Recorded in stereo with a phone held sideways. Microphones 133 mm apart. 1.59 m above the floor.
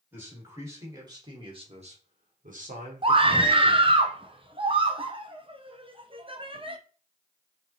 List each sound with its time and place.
0.1 s a man speaking: 15° right (ahead or behind), 3 m; by 3.9 s 50° right (ahead or behind), 2 m
3.0 s a scream: 40° right (ahead or behind), 0.8 m